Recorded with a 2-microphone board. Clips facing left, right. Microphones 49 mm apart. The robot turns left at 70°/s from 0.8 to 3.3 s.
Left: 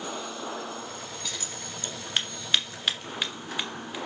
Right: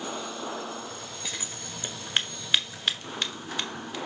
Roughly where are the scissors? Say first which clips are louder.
Even; right.